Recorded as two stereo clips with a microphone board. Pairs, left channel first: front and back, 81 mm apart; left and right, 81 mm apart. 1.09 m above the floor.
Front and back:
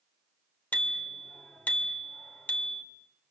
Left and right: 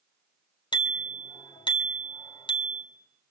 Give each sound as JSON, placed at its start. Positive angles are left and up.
{"t": 0.7, "sound": "a bicycle bell", "azimuth_deg": 70, "distance_m": 2.5}